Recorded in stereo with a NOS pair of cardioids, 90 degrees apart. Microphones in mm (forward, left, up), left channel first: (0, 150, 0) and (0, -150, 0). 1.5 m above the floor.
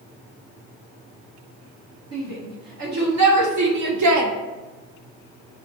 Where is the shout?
60° right, 2 m; by 4.3 s 75° right, 0.9 m.